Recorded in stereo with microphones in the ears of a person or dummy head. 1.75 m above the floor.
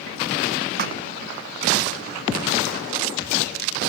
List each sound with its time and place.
0.8 s a thud: 55° right (ahead or behind)